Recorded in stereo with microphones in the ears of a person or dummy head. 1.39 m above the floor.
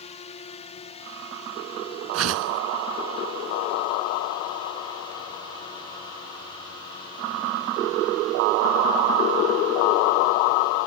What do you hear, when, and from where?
0.0 s a drone: 30° left (ahead or behind); by 10.9 s 15° left (ahead or behind)
2.1 s a whoosh: 80° right